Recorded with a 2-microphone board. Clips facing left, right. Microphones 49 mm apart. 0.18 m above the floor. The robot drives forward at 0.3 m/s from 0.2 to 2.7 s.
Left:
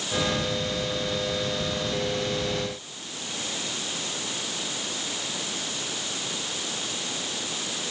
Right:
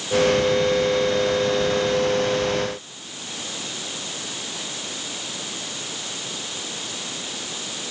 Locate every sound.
Only background noise.